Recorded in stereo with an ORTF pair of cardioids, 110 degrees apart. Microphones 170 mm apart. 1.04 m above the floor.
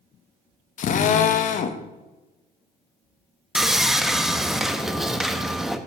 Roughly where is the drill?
Ahead left.